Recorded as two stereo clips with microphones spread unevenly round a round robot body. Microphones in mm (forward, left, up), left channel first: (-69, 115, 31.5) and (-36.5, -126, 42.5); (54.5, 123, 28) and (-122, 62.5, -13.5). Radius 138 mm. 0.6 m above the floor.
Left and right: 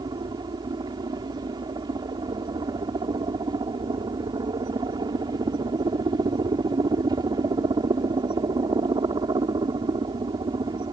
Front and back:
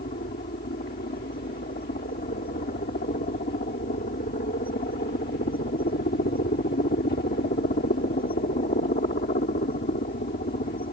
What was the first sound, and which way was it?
A helicopter, 15° right.